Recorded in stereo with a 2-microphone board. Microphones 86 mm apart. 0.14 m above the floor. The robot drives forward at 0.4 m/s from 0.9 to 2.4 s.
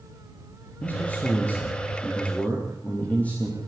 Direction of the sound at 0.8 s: 20° left (ahead or behind).